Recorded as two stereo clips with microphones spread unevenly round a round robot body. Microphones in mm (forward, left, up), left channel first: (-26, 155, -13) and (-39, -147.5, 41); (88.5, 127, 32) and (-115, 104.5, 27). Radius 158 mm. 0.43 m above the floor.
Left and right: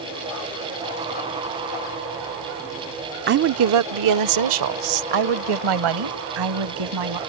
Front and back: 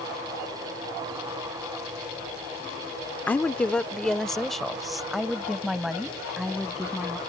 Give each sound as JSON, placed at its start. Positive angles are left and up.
{"t": 3.3, "sound": "a woman speaking", "azimuth_deg": -65}